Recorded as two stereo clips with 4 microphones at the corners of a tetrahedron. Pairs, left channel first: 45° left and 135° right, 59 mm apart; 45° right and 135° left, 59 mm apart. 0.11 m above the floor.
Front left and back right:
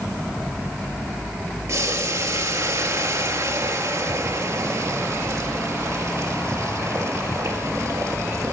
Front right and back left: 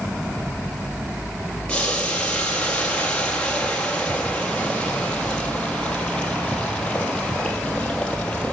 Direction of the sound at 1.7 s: 115° right.